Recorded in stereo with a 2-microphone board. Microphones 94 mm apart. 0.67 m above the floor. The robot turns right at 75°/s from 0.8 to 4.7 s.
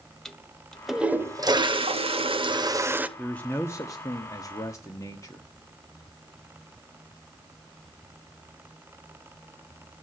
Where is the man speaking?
10° left, 1.4 m; by 5.5 s 125° left, 1.4 m.